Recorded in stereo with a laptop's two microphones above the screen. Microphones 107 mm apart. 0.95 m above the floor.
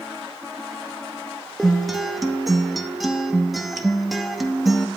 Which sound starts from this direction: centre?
A guitar, at 1.6 s.